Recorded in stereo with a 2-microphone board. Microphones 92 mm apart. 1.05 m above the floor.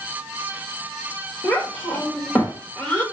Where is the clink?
No clink in this recording.